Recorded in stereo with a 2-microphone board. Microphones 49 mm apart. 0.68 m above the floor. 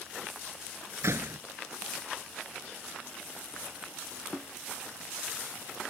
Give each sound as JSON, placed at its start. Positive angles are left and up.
{"t": 1.0, "sound": "a door slam", "side_deg": -65}